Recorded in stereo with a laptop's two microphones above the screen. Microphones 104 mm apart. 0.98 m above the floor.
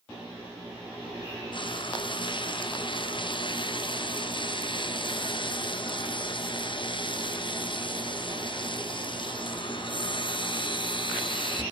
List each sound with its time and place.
1.5 s frying: 50° left (ahead or behind), 0.7 m